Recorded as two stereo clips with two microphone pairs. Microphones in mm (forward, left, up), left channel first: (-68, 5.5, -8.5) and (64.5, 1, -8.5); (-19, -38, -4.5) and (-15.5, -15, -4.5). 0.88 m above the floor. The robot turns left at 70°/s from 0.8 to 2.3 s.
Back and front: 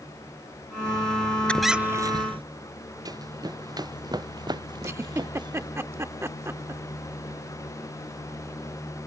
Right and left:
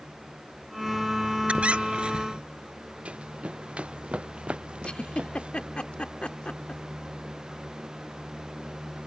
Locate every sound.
1.5 s a squeak: 100° left; by 2.4 s 40° left
3.0 s running footsteps: 60° left; by 5.7 s 55° left
4.8 s a giggle: 70° right